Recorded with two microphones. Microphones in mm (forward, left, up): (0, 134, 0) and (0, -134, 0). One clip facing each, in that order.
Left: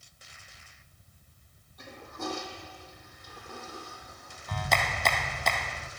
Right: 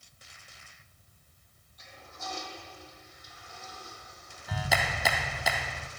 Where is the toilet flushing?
60° left (ahead or behind), 3 m.